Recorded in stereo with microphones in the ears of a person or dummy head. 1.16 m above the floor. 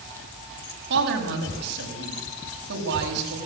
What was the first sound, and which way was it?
A woman speaking, 60° right (ahead or behind).